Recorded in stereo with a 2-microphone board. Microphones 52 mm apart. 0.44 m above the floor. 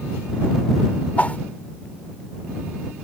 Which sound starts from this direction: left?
A whoosh, at 1.2 s.